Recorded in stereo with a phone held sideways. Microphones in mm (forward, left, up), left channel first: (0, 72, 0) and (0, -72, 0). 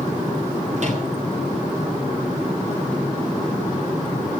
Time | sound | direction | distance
0.8 | a microwave | 55° right (ahead or behind) | 8.5 m